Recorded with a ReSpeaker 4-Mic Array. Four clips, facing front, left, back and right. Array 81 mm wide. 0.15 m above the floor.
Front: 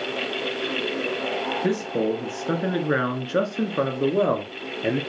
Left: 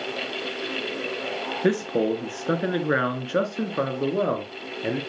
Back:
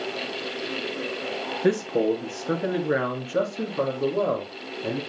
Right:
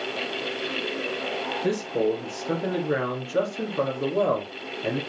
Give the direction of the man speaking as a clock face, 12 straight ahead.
9 o'clock.